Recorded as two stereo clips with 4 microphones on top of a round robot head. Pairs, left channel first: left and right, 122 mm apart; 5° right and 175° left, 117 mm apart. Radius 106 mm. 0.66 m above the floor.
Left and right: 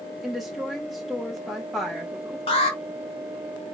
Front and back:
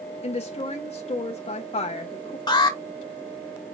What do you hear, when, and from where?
0.2 s a woman speaking: straight ahead, 0.8 m
2.5 s an alarm: 50° left, 1.6 m